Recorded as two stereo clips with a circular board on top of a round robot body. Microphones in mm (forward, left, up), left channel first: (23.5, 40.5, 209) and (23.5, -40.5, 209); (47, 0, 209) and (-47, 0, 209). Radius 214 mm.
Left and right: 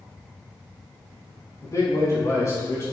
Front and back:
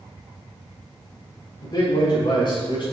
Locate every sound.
1.6 s a man speaking: 45° left, 4.5 m; by 2.9 s 35° left, 4.5 m